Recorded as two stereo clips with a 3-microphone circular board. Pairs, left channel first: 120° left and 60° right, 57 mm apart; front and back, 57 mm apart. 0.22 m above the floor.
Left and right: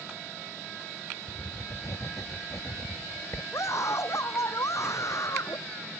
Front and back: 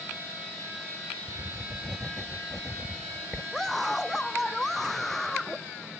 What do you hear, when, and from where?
1.3 s writing: 90° left
3.5 s a scream: 85° left